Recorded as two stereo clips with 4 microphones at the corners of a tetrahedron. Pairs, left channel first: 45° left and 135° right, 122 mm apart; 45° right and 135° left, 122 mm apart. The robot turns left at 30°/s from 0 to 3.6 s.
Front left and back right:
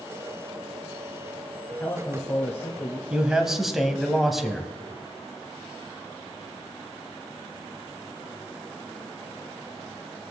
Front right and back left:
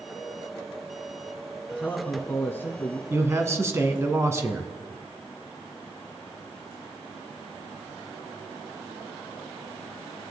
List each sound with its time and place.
1.7 s a man speaking: 15° left, 1.0 m; by 3.0 s 25° right, 1.0 m
3.1 s a man speaking: 155° left, 1.0 m; by 4.7 s 140° left, 1.0 m